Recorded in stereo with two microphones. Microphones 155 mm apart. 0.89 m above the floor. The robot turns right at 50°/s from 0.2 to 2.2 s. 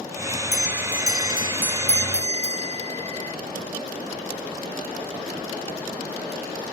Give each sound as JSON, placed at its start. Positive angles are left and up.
{"t": 0.5, "sound": "a bell", "azimuth_deg": -175}